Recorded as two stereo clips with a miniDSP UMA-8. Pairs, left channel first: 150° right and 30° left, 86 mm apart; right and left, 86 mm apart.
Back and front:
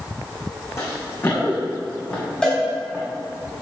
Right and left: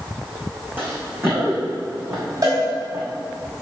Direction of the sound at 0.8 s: 155° left.